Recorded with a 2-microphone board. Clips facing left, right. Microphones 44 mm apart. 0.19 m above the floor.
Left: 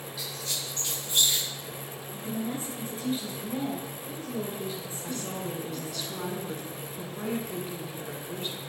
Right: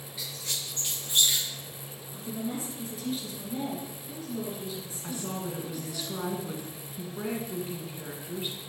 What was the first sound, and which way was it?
A squeak, 30° right (ahead or behind).